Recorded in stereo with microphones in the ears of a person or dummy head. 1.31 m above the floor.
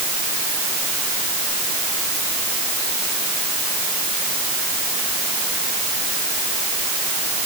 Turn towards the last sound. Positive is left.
No sound to turn to.